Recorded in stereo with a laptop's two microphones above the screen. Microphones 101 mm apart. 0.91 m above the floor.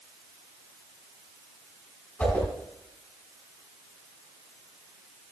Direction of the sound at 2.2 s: 15° left (ahead or behind).